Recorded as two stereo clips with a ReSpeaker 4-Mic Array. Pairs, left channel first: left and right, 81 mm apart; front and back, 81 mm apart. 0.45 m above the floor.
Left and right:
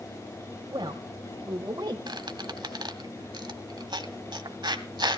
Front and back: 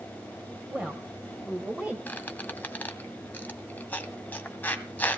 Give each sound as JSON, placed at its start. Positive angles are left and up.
{"t": 0.7, "sound": "a woman speaking", "azimuth_deg": -110, "distance_m": 3.0}
{"t": 2.1, "sound": "a squeak", "azimuth_deg": -70, "distance_m": 1.5}